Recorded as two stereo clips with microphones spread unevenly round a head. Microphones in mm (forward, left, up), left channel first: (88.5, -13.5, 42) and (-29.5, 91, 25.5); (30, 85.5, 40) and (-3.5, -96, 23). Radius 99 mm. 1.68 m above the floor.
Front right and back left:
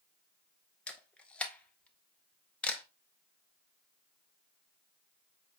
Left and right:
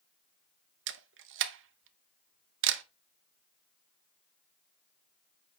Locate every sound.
0.9 s a camera shutter: 125° right, 0.7 m